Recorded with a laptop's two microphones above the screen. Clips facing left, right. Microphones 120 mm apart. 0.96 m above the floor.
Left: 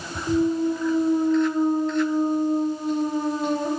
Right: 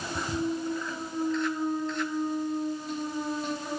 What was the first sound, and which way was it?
A clunk, 50° left (ahead or behind).